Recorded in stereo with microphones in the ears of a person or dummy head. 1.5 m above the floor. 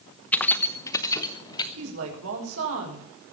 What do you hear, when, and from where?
0.3 s keys jangling: 5° left (ahead or behind), 0.7 m; by 1.7 s 25° left (ahead or behind), 1.5 m
1.8 s a woman speaking: 80° right, 5.5 m